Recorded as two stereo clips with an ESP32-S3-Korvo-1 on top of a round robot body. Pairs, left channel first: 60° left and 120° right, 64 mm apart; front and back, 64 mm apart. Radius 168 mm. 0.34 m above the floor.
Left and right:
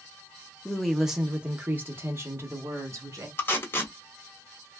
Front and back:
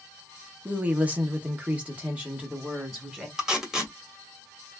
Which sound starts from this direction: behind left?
A woman speaking, at 0.7 s.